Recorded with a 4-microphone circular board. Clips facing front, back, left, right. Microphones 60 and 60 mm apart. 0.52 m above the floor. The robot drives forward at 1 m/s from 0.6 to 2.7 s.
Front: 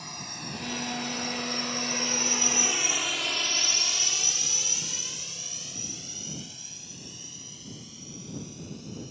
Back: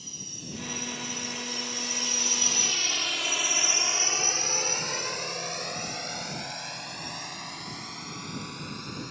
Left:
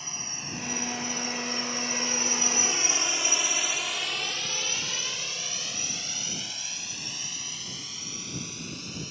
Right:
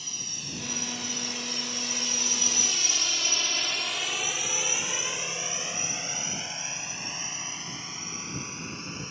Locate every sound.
0.0 s a drone: 30° left; by 9.1 s 150° right